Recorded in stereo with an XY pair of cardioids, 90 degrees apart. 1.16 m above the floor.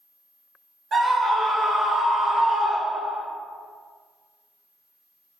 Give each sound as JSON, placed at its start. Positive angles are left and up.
{"t": 0.9, "sound": "a scream", "azimuth_deg": -55, "distance_m": 1.6}